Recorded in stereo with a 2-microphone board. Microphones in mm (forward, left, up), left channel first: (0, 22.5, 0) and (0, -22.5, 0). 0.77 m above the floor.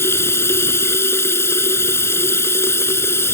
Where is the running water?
75° left (ahead or behind).